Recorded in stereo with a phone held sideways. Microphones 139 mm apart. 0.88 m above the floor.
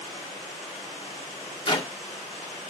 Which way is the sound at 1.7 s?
35° left (ahead or behind).